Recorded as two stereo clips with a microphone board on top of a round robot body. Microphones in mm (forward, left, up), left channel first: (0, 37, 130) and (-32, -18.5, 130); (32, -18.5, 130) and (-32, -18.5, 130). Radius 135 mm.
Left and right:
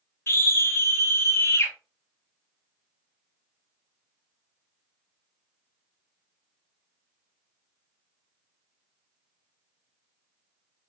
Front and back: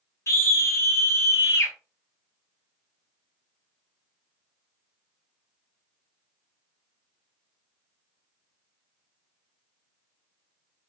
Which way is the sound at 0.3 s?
20° left.